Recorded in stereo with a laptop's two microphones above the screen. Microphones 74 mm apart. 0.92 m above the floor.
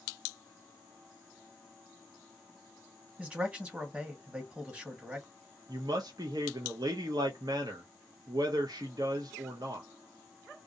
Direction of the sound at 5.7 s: 65° right (ahead or behind).